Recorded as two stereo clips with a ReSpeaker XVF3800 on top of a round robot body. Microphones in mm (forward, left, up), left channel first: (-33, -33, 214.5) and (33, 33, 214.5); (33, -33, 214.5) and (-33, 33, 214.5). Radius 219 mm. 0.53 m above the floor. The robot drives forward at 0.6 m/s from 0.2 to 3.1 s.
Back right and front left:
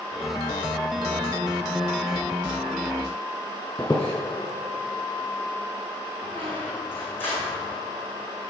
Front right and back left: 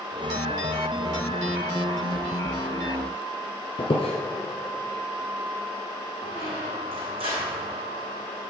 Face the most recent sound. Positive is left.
turn(degrees=155)